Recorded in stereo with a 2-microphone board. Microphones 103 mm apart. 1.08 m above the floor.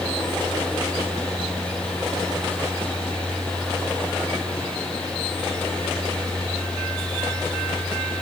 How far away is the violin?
I don't hear a violin.